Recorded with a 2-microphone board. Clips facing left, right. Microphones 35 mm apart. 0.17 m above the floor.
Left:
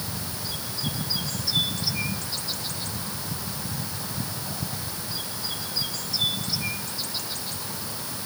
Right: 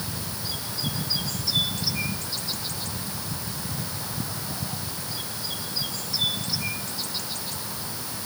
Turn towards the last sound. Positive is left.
No sound to turn to.